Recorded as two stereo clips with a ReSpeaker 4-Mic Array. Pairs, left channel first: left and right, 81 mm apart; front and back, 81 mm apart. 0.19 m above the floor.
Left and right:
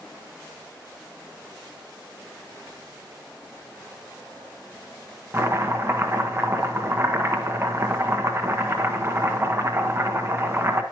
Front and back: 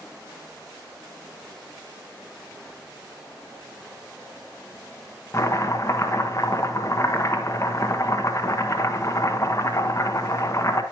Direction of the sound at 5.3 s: 40° right.